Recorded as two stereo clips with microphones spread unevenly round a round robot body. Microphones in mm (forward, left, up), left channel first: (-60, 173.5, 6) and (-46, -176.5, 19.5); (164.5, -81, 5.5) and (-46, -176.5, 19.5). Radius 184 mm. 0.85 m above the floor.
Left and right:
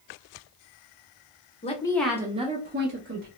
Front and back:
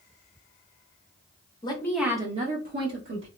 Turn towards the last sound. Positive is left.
turn(degrees=-140)